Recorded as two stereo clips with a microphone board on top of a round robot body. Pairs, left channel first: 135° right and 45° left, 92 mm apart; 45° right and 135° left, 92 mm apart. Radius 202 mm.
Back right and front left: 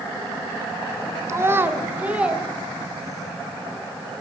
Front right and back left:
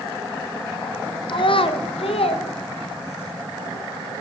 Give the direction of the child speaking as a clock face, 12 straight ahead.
1 o'clock.